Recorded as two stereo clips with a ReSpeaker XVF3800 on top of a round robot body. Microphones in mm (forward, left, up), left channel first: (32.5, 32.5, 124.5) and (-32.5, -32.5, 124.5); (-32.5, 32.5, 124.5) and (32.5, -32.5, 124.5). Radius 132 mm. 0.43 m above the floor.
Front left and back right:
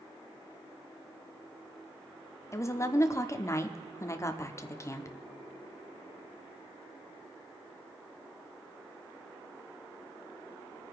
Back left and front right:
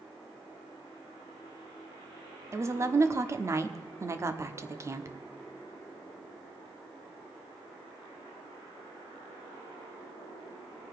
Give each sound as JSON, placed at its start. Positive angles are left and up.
{"t": 2.5, "sound": "a woman speaking", "azimuth_deg": 0, "distance_m": 1.0}